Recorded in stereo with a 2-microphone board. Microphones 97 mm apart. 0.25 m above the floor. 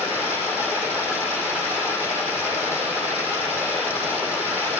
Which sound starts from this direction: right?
Running water, at 0.0 s.